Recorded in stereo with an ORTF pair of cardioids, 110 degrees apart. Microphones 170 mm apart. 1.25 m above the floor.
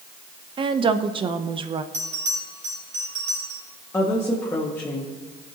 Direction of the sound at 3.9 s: 15° left.